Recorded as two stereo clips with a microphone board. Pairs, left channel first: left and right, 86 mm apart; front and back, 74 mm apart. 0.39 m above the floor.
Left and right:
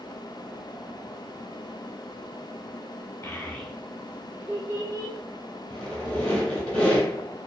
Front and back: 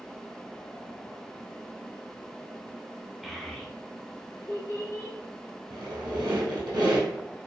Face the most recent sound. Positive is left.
turn(degrees=170)